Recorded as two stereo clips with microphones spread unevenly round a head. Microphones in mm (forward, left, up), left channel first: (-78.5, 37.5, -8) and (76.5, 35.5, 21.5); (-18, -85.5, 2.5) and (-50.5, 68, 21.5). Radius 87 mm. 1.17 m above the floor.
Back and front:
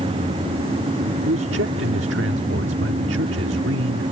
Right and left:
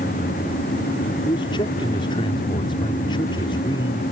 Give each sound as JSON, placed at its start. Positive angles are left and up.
{"t": 1.2, "sound": "a man speaking", "azimuth_deg": -15}